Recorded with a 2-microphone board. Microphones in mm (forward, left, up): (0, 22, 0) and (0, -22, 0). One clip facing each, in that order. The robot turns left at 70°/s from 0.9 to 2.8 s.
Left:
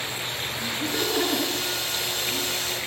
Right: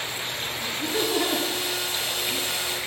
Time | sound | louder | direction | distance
0.6 | laughter | right 1 dB | 45° left (ahead or behind) | 3 m